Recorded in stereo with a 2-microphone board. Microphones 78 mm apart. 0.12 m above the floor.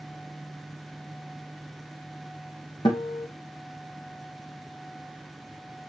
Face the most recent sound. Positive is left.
turn(degrees=75)  # may be behind; listen again after turning